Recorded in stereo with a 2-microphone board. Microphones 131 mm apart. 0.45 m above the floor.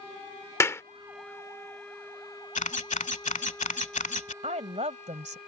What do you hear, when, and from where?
0.6 s a clap: 20° left (ahead or behind)
2.5 s a camera shutter: 70° left (ahead or behind)
4.4 s a woman speaking: 60° right (ahead or behind)